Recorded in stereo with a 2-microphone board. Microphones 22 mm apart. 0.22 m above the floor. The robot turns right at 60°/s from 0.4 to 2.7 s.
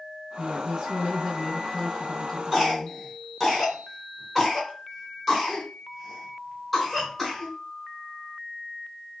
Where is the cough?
10° right (ahead or behind), 2.5 m; by 7.5 s centre (ahead or behind), 2.5 m.